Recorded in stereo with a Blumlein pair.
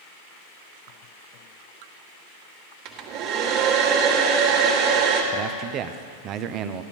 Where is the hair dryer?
40° right, 1.9 m.